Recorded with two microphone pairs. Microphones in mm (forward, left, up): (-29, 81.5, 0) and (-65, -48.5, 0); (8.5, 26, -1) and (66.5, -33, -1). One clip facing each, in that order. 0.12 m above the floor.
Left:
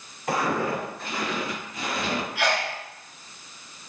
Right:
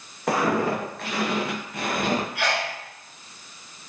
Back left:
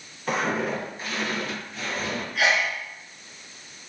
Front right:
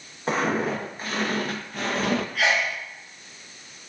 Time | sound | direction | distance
0.3 | footsteps | 105° right | 1.8 m
2.4 | a sneeze | 175° left | 1.1 m